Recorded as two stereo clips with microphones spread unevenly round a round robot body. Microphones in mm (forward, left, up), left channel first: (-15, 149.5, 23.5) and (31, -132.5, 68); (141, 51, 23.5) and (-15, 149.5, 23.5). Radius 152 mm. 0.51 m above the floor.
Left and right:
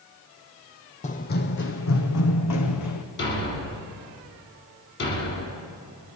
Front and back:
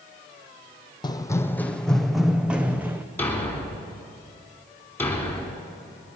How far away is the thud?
About 2.5 m.